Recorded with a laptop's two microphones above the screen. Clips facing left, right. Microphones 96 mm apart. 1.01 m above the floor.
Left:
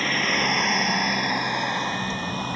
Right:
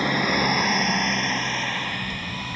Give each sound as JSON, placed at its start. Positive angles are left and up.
{"t": 0.0, "sound": "a vehicle", "side_deg": -15}